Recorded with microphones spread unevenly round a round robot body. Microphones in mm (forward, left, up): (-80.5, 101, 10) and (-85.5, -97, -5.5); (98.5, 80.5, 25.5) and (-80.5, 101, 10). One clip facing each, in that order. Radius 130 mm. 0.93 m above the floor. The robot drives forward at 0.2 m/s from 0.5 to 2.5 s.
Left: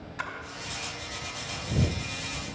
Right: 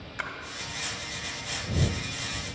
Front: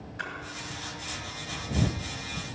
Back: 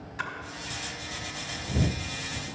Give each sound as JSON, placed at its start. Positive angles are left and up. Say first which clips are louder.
{"t": 0.2, "sound": "a splash", "louder": "even, back 3 dB", "azimuth_deg": -150, "distance_m": 1.8}